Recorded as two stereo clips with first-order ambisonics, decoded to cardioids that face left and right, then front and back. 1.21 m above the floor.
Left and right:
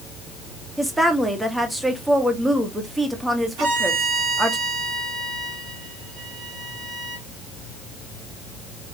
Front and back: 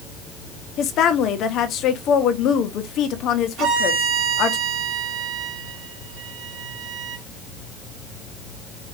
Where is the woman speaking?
10° right, 0.7 m.